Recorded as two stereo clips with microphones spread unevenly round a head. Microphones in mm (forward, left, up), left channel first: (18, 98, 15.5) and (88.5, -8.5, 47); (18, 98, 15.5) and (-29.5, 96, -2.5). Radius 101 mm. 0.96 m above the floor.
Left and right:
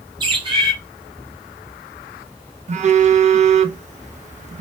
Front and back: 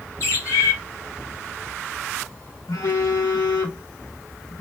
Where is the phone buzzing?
25° right, 0.5 m.